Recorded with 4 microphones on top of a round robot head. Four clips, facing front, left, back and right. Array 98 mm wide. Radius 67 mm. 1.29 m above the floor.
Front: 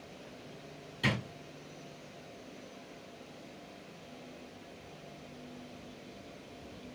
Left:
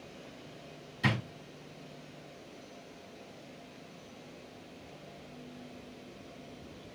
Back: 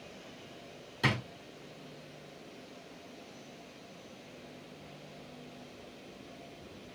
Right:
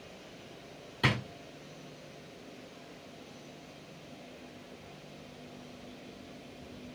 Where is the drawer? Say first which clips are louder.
Right 1 dB, back 1 dB; 115° right, 1.6 m.